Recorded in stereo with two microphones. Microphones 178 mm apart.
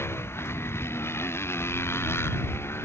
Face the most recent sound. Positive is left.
turn(degrees=15)  # may be behind; listen again after turning